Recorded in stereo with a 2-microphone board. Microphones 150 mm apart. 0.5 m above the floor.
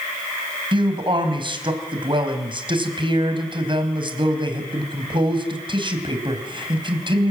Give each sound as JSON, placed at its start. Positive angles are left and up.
{"t": 0.7, "sound": "a man speaking", "side_deg": -35, "distance_m": 4.0}